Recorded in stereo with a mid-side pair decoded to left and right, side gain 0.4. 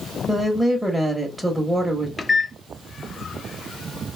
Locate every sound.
0.3 s a woman speaking: 10° right, 1.1 m
2.2 s a microwave: 35° left, 0.7 m